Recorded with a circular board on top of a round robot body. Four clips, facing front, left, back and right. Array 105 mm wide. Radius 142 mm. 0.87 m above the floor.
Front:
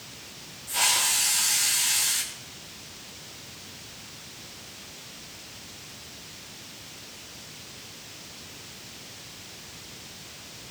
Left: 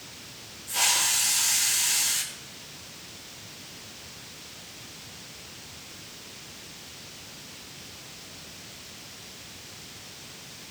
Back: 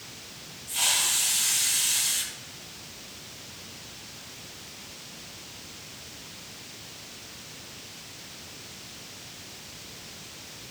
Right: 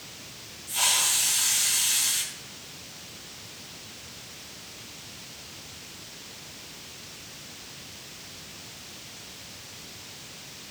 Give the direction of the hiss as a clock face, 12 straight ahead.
11 o'clock.